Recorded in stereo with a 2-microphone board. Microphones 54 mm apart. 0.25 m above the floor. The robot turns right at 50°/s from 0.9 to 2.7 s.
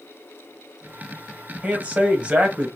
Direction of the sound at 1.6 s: 25° right (ahead or behind).